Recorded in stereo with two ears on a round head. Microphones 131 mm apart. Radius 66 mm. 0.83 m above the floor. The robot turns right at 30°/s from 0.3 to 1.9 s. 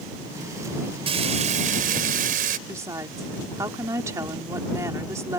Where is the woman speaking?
20° right (ahead or behind).